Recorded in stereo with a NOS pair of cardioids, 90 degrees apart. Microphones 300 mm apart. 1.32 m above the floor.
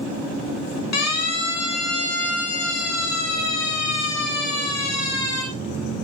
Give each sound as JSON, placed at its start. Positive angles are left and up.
{"t": 0.9, "sound": "a siren", "azimuth_deg": 60, "distance_m": 4.5}